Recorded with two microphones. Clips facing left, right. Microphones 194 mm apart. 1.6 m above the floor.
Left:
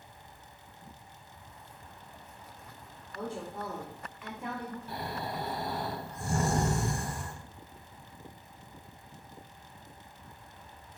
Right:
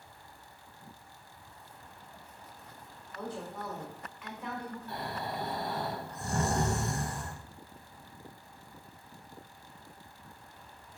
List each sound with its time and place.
3.1 s a woman speaking: 25° left (ahead or behind), 1.2 m
4.9 s snoring: 10° left (ahead or behind), 1.3 m